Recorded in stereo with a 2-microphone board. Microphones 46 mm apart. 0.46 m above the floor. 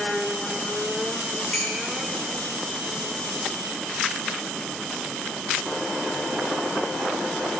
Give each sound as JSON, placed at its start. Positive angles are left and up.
{"t": 1.5, "sound": "dishes clattering", "side_deg": 25, "distance_m": 6.0}